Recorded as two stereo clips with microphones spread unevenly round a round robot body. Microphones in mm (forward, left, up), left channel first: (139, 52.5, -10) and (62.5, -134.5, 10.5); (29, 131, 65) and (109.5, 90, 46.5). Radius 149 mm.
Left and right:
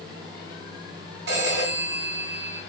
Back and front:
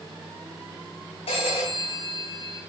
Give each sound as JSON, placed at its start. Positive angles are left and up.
{"t": 1.3, "sound": "a phone ringing", "azimuth_deg": -170, "distance_m": 4.0}